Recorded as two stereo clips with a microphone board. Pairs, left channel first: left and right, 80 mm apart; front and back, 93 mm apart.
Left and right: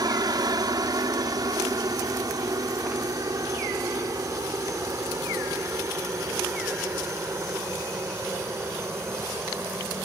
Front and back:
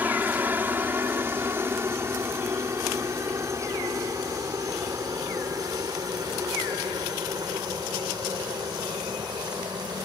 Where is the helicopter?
110° right; by 10.1 s 145° right.